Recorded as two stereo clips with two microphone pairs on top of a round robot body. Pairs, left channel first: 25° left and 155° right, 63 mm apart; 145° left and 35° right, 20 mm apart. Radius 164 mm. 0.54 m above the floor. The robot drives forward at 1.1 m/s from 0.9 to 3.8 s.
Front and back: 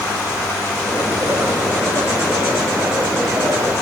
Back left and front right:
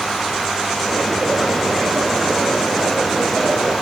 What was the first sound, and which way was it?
Only background noise.